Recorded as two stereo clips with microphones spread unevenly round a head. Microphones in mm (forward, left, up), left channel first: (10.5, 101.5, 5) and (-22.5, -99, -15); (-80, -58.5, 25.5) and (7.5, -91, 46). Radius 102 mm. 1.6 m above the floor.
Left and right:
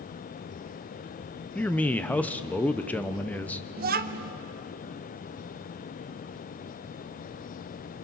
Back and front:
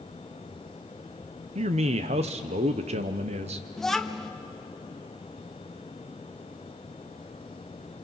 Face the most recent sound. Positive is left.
turn(degrees=-100)